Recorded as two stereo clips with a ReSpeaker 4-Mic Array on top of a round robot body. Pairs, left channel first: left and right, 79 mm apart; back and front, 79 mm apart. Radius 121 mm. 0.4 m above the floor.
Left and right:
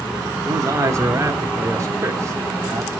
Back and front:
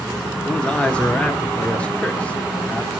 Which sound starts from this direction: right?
A man speaking, at 0.5 s.